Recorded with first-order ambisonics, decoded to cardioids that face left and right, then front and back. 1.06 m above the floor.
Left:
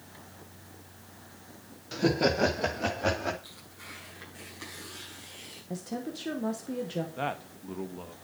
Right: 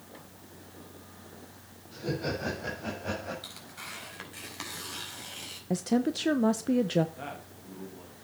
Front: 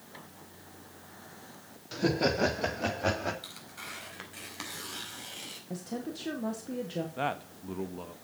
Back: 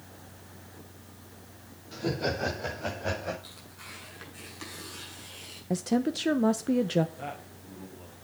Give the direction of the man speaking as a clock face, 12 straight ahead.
11 o'clock.